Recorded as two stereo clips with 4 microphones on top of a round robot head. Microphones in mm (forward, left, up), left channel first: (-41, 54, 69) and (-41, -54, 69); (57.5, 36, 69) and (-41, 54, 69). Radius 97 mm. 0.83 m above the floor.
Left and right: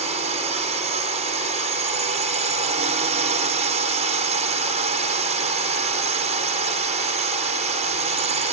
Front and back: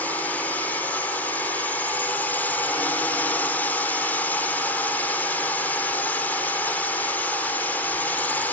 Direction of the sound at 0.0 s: 85° right.